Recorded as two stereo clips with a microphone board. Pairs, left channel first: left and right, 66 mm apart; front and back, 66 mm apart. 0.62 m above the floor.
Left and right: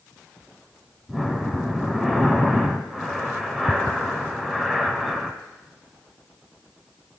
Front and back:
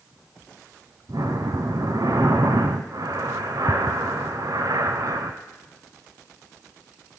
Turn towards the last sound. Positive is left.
turn(degrees=175)